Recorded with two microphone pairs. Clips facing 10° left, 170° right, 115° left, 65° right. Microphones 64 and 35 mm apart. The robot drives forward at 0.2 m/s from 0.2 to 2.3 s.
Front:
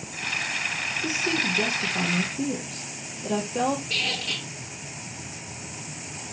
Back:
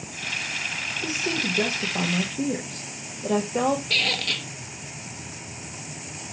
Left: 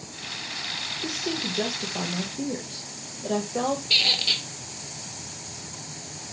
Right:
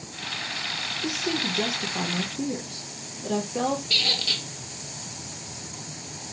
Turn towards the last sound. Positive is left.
turn(degrees=-175)